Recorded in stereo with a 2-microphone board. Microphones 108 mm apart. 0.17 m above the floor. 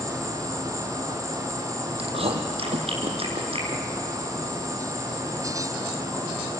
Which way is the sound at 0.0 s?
30° left (ahead or behind).